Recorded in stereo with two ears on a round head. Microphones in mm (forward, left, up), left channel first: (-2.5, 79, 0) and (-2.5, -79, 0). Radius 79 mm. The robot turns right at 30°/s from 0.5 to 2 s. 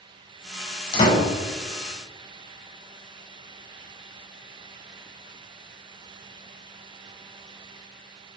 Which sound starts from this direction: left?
A door slam, at 0.9 s.